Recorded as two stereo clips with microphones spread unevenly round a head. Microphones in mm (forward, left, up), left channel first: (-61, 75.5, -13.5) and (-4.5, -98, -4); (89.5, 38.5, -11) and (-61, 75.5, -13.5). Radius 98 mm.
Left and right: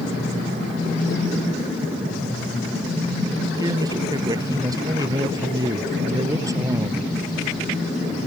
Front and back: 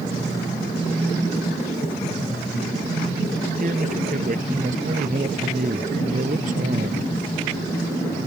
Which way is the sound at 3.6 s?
140° right.